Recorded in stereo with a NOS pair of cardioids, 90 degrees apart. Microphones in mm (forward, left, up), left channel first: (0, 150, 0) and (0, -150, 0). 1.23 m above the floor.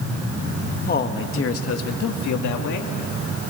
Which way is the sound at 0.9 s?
30° left.